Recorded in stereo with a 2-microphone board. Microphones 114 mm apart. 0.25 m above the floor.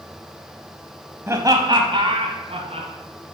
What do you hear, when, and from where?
1.3 s laughter: 20° right (ahead or behind), 1.3 m; by 2.9 s 65° right (ahead or behind), 2.5 m